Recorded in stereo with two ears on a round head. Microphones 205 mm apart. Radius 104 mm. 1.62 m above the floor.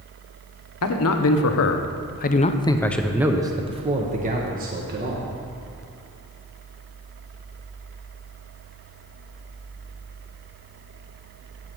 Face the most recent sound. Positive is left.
turn(degrees=-45)  # may be behind; listen again after turning